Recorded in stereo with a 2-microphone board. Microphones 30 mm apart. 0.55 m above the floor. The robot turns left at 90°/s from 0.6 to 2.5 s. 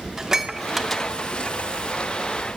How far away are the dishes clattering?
About 0.5 m.